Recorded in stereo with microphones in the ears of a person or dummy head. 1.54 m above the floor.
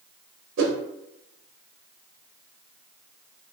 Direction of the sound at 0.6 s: 70° right (ahead or behind).